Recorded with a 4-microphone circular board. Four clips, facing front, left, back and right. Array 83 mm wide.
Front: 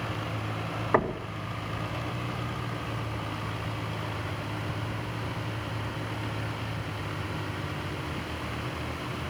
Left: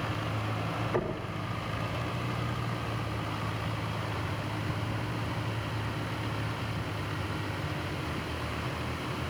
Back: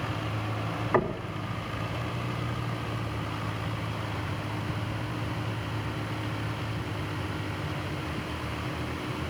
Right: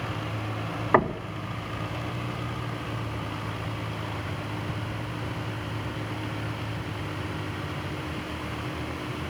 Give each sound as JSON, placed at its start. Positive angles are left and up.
{"t": 0.9, "sound": "knocking", "azimuth_deg": -70, "distance_m": 0.9}